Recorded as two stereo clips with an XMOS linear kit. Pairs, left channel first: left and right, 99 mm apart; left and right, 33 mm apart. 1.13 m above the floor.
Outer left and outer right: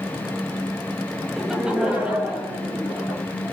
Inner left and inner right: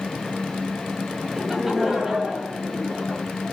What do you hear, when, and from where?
1.4 s laughter: centre (ahead or behind), 0.9 m; by 3.2 s 25° right (ahead or behind), 2.5 m